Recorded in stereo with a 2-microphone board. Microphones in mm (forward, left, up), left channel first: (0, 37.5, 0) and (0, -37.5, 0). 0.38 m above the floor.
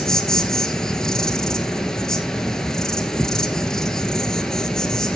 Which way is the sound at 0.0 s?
10° left (ahead or behind).